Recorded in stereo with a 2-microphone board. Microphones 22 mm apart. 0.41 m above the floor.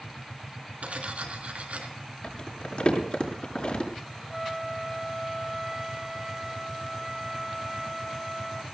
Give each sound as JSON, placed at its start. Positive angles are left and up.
{"t": 0.8, "sound": "cutlery clinking", "side_deg": -70, "distance_m": 3.0}
{"t": 2.2, "sound": "crumpling", "side_deg": 45, "distance_m": 6.0}
{"t": 4.3, "sound": "a flute", "side_deg": -5, "distance_m": 1.7}